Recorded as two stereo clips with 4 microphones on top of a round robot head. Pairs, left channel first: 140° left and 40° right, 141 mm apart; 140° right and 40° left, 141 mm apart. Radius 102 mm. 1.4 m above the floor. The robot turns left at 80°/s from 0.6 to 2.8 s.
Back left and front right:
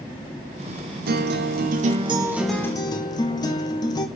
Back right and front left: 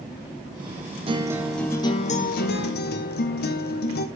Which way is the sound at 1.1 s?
15° right.